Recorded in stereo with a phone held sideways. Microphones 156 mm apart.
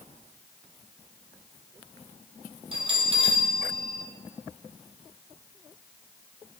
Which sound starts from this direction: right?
A bell, at 2.7 s.